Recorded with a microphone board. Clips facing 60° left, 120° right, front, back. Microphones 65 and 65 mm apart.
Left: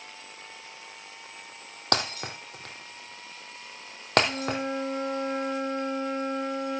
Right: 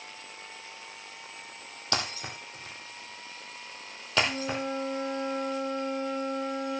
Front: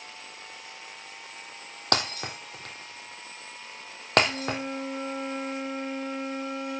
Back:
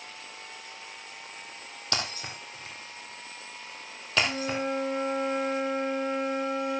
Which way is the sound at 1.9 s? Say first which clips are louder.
Left 4 dB, front 6 dB; 30° left.